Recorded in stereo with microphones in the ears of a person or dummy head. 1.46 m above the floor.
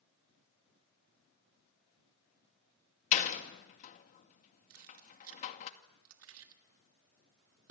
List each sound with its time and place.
3.1 s a door slam: 40° left (ahead or behind), 2 m
4.7 s keys jangling: 70° right (ahead or behind), 1.8 m